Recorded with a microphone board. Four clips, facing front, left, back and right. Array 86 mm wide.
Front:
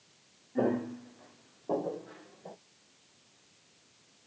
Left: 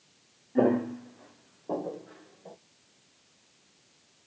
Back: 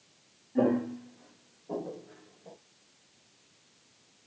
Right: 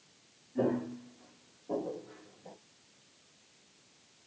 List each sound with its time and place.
0.6 s footsteps: 95° left, 0.9 m; by 2.5 s 20° left, 1.4 m